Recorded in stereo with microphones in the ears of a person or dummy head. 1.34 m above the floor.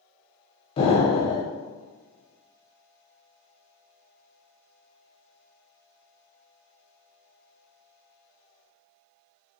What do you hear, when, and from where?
0.8 s an explosion: 35° left (ahead or behind), 0.6 m